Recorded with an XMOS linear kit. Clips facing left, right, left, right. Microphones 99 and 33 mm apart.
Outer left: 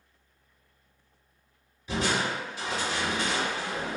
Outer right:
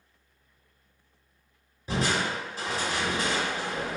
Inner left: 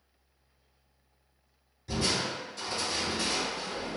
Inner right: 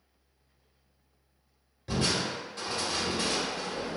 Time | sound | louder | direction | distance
1.9 | crushing | even, inner right 1 dB | 40° right (ahead or behind) | 1.1 m